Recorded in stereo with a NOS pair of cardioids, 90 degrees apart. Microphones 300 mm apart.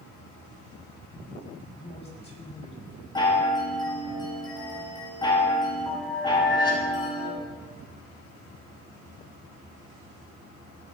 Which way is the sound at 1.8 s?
20° left.